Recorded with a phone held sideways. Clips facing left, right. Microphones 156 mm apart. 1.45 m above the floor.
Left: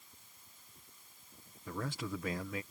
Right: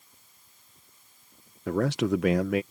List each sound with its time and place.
1.7 s a man speaking: 80° right